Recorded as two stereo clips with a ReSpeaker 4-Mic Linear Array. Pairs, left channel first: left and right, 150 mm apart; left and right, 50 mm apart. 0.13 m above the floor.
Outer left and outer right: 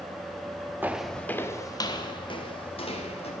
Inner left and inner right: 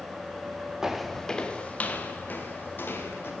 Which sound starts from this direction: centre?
Footsteps, at 0.8 s.